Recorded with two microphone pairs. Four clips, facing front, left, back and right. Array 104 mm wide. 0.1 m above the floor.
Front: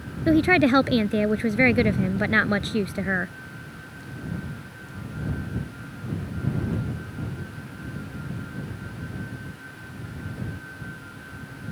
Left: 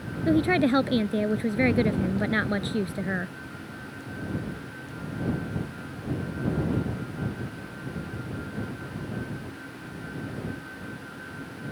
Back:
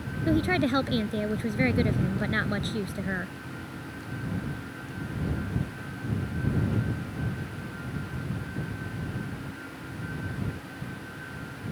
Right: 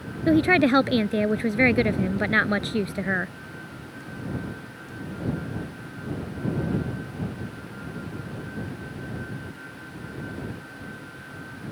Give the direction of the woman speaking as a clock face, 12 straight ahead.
1 o'clock.